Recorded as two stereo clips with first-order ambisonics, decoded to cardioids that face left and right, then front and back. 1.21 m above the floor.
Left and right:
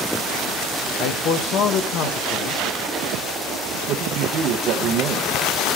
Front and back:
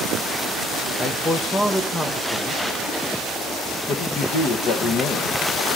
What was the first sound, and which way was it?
A man speaking, 75° left.